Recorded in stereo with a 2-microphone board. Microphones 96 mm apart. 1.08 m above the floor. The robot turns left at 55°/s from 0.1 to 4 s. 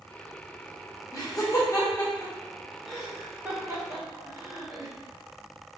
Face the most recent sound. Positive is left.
turn(degrees=-30)  # may be behind; listen again after turning